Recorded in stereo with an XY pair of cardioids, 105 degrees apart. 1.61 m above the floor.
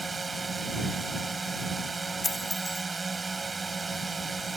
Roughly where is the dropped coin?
Ahead.